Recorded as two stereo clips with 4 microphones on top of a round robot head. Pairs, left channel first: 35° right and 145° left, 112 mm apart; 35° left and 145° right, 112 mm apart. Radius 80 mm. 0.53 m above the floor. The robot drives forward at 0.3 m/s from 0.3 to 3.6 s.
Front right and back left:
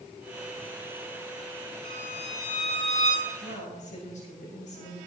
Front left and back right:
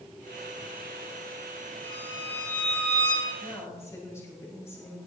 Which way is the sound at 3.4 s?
30° right.